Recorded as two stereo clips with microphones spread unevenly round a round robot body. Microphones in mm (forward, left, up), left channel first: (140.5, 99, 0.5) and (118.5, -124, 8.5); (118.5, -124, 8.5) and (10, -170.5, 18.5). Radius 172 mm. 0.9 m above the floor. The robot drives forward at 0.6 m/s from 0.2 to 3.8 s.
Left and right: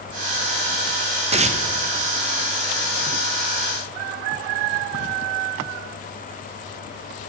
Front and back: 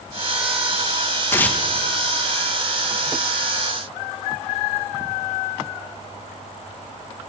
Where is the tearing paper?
40° right, 0.7 m; by 1.6 s 55° right, 0.6 m.